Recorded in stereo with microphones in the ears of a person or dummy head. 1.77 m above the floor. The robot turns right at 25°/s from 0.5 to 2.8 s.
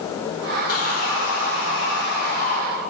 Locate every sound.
0.7 s sawing: 80° left, 1.7 m; by 2.6 s 130° left, 1.7 m